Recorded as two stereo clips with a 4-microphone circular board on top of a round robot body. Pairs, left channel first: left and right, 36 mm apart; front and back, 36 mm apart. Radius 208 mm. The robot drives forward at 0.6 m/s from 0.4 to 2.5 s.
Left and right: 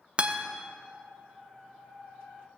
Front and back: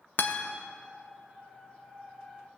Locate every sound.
0.2 s a guitar: 30° right, 0.6 m; by 0.4 s 35° right, 0.5 m